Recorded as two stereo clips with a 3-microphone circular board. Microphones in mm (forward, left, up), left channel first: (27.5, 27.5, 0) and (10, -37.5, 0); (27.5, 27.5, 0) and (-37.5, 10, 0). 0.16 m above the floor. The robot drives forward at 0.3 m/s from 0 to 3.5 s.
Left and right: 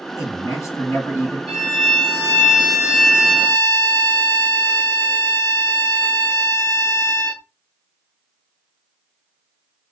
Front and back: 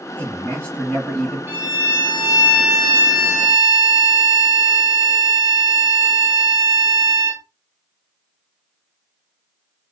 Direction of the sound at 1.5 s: 175° left.